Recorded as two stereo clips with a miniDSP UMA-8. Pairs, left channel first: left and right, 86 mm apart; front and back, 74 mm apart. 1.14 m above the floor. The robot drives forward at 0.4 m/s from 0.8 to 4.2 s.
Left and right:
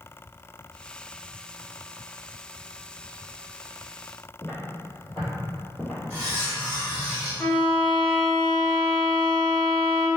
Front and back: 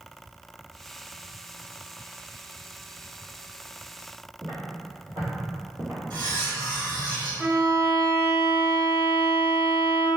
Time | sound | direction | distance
4.4 | footsteps | 175° left | 1.9 m
6.1 | cutlery clinking | 165° left | 1.8 m
7.4 | a violin | 150° left | 1.1 m